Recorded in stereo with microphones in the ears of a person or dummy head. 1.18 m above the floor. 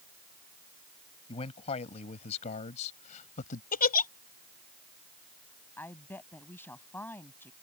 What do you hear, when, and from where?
1.3 s a man speaking: 30° left (ahead or behind); by 3.6 s 45° left (ahead or behind)
3.7 s a giggle: 45° left (ahead or behind)
5.8 s a woman speaking: 10° left (ahead or behind)